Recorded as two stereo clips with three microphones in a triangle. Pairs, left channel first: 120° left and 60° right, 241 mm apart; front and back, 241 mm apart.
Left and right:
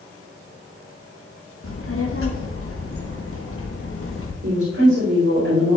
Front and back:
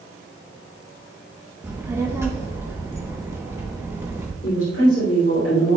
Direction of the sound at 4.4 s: 40° right.